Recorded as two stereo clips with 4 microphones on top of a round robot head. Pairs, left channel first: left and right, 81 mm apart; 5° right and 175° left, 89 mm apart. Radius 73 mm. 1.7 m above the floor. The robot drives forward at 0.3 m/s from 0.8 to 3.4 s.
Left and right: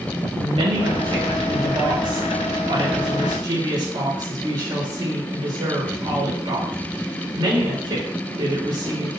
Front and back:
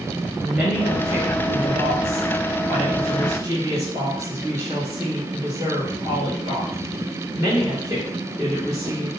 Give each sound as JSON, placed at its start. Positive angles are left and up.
{"t": 0.4, "sound": "a woman speaking", "azimuth_deg": -95, "distance_m": 2.5}